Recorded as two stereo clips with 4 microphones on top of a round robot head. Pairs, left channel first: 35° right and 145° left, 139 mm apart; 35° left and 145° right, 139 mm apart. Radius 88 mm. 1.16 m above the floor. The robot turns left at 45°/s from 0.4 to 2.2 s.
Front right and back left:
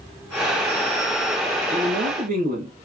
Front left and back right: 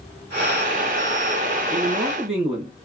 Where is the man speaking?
170° right, 1.7 m; by 2.8 s 165° left, 1.7 m.